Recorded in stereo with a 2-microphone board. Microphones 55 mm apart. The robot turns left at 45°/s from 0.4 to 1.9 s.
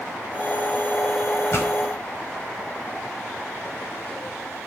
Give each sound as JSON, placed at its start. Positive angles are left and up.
{"t": 1.5, "sound": "a pop", "side_deg": 50, "distance_m": 5.0}